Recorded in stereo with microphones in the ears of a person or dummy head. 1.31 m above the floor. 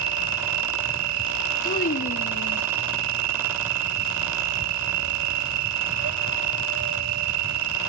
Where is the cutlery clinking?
No cutlery clinking in this recording.